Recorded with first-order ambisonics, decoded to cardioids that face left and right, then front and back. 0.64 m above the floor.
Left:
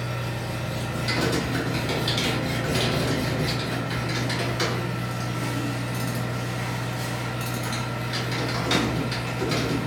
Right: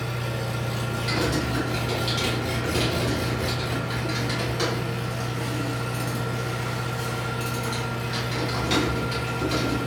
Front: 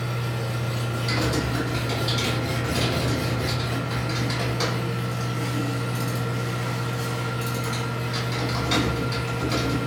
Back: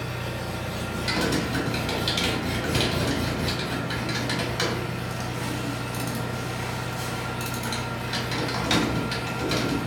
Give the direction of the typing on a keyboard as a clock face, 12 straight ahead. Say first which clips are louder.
Left 1 dB, back 1 dB; 6 o'clock.